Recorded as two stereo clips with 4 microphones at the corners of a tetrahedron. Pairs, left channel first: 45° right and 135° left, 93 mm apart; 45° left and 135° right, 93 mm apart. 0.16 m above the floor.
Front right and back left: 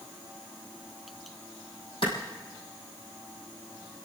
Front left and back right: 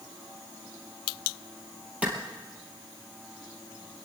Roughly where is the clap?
Ahead right.